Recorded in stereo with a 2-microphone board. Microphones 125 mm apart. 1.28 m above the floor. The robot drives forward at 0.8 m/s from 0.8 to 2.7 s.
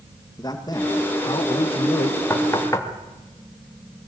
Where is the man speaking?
30° left (ahead or behind), 1.9 m; by 2.2 s 60° left (ahead or behind), 1.2 m.